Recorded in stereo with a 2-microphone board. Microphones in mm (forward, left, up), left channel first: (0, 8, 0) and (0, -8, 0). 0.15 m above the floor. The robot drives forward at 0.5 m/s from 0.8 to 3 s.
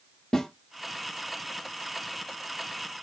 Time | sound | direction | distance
0.3 | a snare drum | 55° left (ahead or behind) | 2 m